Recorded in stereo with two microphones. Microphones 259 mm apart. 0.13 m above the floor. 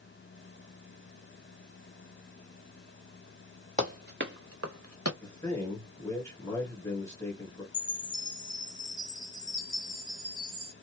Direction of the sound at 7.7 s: 15° left (ahead or behind).